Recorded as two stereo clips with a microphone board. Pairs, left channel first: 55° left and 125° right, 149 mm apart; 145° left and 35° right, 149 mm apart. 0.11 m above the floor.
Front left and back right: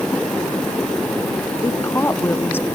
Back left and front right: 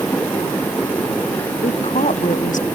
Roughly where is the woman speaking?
Behind left.